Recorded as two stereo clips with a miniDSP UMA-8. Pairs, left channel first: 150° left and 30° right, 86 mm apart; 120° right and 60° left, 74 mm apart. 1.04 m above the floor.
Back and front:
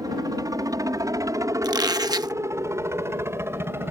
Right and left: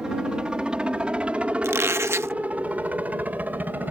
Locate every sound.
0.0 s a helicopter: 15° right; by 3.9 s 10° left
1.6 s a squeak: 10° left